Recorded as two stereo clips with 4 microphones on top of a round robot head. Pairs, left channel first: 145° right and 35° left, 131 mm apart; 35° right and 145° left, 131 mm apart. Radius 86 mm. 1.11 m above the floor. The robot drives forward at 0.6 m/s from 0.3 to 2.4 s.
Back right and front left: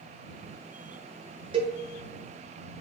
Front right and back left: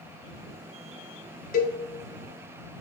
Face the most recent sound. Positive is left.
turn(degrees=-55)